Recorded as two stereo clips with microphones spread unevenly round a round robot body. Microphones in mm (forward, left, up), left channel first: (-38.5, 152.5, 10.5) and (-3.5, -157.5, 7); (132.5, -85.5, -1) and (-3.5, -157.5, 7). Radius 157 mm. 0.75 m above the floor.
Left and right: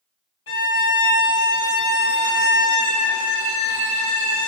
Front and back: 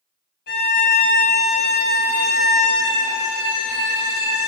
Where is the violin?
45° left, 3 m.